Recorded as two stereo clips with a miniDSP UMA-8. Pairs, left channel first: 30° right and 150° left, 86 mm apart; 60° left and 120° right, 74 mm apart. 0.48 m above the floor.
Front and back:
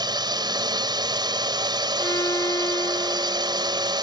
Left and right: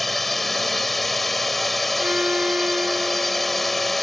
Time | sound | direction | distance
0.0 | a drone | 150° left | ?
2.0 | a violin | 55° right | ?